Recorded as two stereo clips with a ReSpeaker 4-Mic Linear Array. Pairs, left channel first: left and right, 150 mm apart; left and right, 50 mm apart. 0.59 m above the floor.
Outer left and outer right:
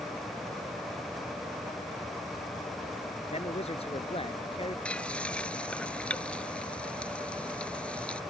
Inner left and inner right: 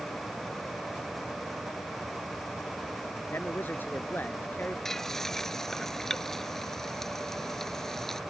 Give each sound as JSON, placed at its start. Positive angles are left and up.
{"t": 3.3, "sound": "a man speaking", "side_deg": 45}
{"t": 4.8, "sound": "frying", "side_deg": 10}